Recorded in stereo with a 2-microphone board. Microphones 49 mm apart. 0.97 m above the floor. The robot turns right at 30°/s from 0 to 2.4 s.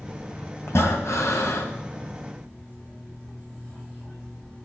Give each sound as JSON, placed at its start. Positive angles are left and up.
{"t": 0.7, "sound": "breathing", "azimuth_deg": 70, "distance_m": 1.9}